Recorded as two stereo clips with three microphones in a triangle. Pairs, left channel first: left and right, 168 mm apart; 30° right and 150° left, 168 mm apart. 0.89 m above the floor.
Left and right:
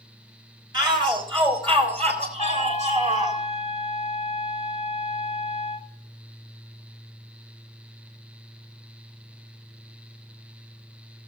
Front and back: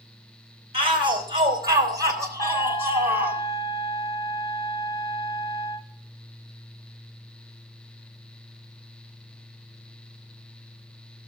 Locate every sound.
0.7 s a shout: 150° right, 3.5 m; by 3.4 s 130° right, 3.5 m
2.4 s a trumpet: 40° left, 0.7 m